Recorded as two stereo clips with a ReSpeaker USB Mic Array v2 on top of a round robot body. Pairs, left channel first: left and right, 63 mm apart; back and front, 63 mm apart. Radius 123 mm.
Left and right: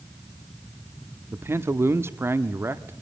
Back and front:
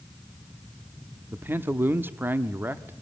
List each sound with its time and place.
1.3 s a man speaking: 50° right, 1.1 m